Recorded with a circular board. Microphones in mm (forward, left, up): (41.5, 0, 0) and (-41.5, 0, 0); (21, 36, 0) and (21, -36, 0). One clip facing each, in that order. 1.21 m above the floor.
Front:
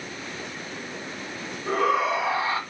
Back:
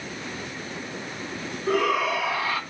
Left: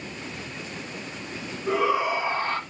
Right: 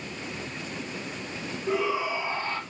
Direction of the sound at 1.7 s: 60° left.